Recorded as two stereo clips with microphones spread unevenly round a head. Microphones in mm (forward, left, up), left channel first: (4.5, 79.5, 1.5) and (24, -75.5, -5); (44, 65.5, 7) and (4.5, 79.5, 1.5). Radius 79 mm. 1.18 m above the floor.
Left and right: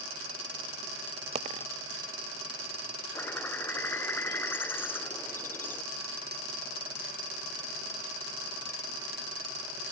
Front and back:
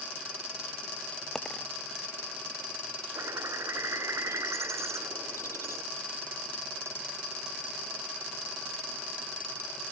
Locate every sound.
1.4 s a dropped coin: 85° right
3.1 s a bird: 175° left